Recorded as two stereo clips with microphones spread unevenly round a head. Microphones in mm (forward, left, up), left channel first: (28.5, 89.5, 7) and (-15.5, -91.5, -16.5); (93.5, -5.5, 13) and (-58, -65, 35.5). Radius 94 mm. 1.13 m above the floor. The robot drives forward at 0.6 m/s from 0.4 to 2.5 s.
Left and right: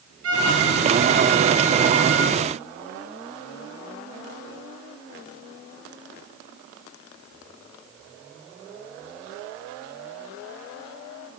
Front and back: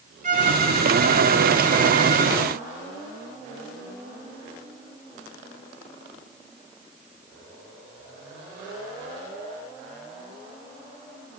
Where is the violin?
120° right, 5 m; by 2.4 s 130° right, 5.5 m.